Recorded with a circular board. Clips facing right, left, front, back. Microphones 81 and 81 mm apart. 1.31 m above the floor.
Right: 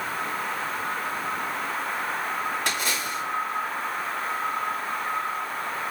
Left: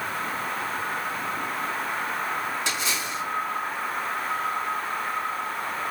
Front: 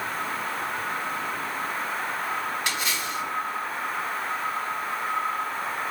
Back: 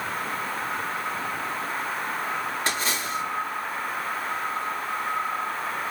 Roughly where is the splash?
Behind right.